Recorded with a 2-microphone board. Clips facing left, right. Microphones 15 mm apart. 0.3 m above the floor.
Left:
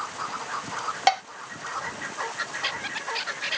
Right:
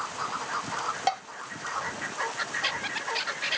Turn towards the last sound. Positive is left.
turn(degrees=30)  # may be behind; listen again after turning